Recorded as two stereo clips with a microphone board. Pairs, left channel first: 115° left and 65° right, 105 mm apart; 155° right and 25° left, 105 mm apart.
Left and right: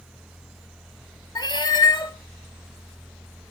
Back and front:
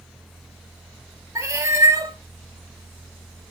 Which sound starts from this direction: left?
A cat meowing, at 1.4 s.